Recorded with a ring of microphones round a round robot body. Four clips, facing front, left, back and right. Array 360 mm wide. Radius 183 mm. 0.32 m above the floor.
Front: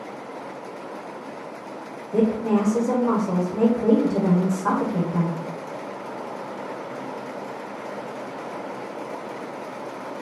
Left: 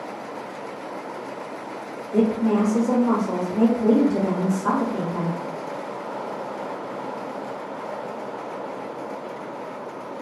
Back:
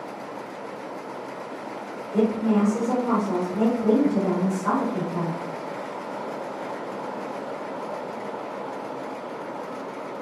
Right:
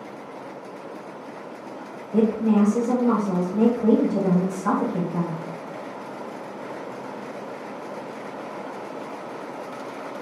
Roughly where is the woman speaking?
Ahead left.